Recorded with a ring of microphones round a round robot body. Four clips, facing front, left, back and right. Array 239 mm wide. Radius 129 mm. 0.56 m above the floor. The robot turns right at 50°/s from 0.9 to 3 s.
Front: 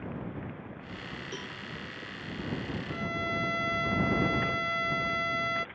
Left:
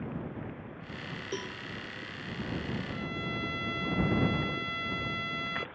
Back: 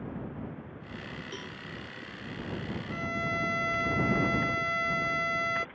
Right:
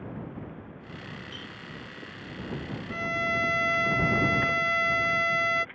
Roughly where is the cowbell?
Left.